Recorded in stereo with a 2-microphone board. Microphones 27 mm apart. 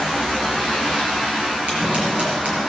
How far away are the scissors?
About 5.5 m.